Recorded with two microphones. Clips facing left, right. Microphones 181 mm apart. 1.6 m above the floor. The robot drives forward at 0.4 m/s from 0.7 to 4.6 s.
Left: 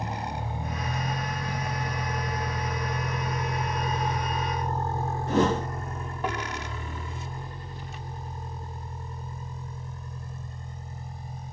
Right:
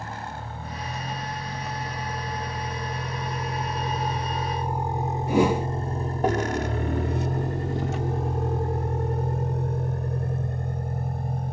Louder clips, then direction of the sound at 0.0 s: Left 3 dB; 15° left (ahead or behind).